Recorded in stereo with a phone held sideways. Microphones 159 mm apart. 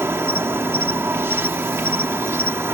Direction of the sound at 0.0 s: 15° right (ahead or behind).